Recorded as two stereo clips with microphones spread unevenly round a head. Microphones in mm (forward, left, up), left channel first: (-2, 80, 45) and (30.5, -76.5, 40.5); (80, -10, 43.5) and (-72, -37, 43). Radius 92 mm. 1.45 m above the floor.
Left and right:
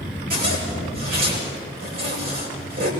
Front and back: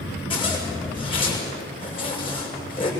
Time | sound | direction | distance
0.3 | a zipper | 45° right | 8 m